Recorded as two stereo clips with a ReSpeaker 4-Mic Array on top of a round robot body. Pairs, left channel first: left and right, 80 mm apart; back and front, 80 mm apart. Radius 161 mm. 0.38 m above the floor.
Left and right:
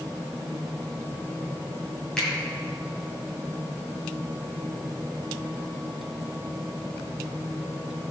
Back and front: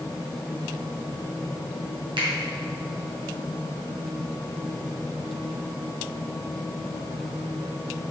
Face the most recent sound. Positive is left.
turn(degrees=10)